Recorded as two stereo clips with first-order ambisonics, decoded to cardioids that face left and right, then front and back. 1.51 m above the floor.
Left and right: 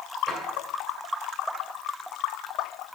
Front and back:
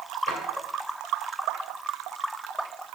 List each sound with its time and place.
0.3 s a drawer: 5° right, 2.5 m